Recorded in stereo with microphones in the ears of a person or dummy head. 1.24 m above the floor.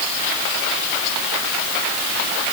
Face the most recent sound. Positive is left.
No sound to turn to.